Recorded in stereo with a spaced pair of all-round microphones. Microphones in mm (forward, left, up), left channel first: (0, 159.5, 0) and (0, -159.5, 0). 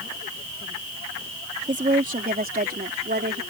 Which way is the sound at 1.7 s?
25° right (ahead or behind).